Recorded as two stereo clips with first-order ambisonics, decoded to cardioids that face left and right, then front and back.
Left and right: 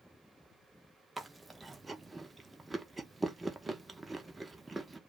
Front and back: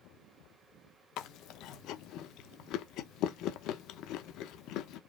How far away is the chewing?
About 0.5 m.